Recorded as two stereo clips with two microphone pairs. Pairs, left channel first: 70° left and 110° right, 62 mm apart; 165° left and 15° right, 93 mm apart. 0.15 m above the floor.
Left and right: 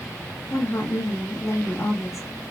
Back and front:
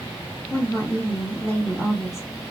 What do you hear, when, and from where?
0.5 s a woman speaking: 105° left, 2.5 m